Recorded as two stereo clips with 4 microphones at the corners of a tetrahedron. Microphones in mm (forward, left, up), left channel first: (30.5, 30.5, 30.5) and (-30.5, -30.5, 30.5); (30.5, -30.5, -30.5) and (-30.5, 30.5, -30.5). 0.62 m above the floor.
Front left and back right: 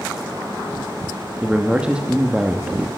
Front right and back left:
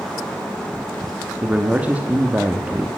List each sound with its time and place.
1.4 s a man speaking: 165° left, 0.9 m